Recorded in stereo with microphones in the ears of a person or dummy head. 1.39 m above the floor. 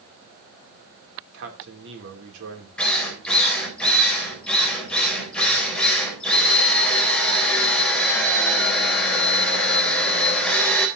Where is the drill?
5° left (ahead or behind), 4 m.